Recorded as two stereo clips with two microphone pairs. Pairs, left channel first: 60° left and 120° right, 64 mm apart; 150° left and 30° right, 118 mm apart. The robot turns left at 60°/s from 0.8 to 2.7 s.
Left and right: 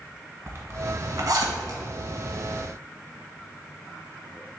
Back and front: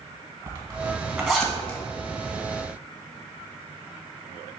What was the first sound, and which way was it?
A zipper, 80° right.